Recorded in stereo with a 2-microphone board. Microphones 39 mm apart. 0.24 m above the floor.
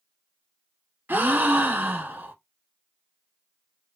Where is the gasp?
70° right (ahead or behind), 0.9 m.